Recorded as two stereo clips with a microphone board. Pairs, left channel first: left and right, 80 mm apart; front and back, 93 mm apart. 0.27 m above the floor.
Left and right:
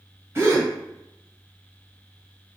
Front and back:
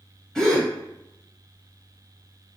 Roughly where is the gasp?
Right.